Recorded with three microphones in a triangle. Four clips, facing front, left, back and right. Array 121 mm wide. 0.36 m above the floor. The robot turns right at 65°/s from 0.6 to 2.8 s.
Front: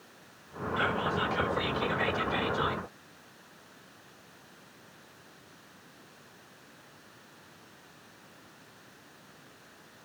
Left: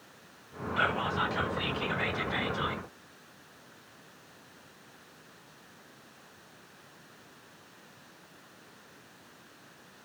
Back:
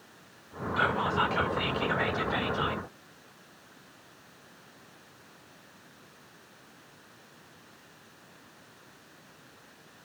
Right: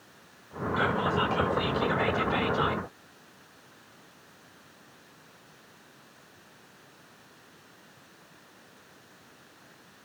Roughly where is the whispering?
Behind left.